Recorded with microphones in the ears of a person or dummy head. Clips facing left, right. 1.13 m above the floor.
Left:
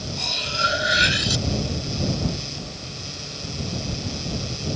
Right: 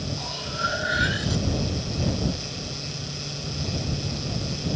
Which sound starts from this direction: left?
Cutlery clinking, at 0.2 s.